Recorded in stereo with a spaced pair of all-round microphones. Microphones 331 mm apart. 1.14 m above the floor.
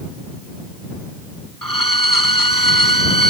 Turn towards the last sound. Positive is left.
turn(degrees=80)